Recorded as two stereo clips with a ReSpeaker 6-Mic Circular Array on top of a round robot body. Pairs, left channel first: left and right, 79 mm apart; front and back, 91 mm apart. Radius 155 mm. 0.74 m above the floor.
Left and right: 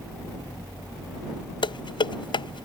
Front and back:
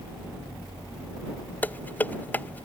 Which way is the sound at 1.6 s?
70° left.